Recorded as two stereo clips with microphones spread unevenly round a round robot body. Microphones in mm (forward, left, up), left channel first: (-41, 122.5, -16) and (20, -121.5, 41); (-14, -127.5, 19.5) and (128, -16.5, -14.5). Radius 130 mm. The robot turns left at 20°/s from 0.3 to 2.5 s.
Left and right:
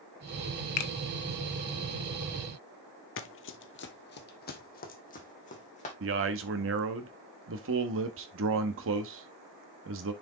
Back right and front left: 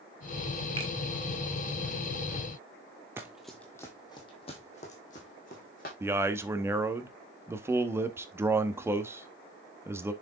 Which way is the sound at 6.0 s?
30° right.